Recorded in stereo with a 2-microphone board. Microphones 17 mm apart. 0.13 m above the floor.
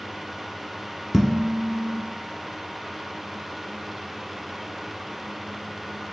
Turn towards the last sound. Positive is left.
turn(degrees=-5)  # may be behind; listen again after turning